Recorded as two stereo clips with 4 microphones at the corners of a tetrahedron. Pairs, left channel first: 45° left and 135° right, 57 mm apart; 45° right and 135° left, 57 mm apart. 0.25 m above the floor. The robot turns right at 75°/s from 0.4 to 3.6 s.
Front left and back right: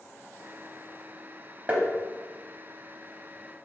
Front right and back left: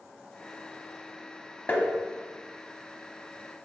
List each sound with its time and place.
1.7 s tapping: 85° right, 0.7 m; by 1.9 s 70° right, 0.7 m